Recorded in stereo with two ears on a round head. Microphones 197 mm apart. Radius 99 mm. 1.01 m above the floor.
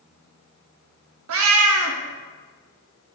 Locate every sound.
1.3 s a cat meowing: 70° right (ahead or behind), 0.9 m